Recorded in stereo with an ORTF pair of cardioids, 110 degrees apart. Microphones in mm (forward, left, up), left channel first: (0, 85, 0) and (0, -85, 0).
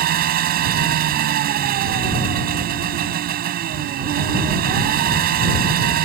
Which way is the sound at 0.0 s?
65° right.